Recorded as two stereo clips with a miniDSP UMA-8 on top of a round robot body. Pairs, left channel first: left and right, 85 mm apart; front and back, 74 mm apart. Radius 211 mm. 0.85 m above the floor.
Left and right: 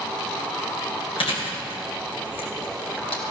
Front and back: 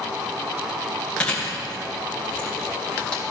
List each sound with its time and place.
1.2 s chewing: 75° left, 2.5 m